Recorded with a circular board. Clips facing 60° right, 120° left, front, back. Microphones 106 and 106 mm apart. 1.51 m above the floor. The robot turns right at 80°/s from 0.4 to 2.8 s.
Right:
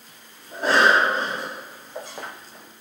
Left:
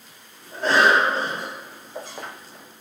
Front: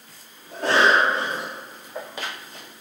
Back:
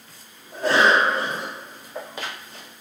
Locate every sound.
0.5 s a cough: 10° left, 1.0 m; by 1.5 s 85° left, 1.0 m